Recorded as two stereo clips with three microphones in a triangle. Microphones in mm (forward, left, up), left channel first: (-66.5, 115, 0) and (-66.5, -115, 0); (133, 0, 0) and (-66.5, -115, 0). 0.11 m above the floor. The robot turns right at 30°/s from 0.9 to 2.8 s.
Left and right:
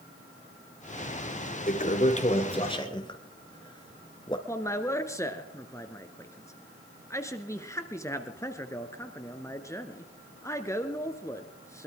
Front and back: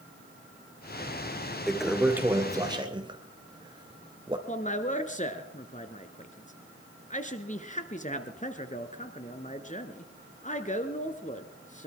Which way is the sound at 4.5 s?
25° left.